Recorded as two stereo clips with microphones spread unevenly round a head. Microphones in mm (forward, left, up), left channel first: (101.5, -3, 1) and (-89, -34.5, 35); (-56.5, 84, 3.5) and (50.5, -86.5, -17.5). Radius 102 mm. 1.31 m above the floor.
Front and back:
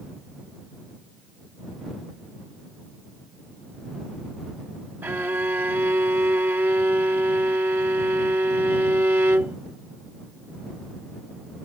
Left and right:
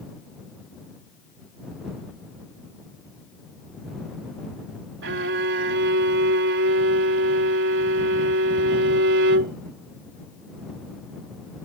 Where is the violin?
90° right.